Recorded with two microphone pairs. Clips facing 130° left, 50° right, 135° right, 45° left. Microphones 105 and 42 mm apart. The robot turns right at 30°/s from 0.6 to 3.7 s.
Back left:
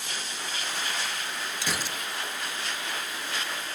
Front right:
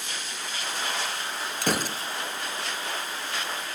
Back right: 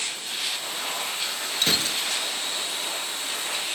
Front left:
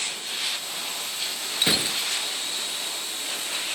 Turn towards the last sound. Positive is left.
turn(degrees=35)